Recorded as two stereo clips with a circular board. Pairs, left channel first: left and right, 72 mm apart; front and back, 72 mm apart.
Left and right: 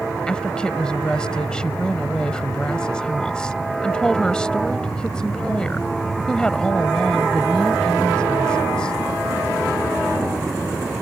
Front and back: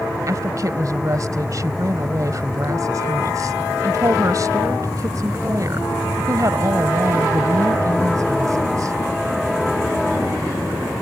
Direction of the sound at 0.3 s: 165° left.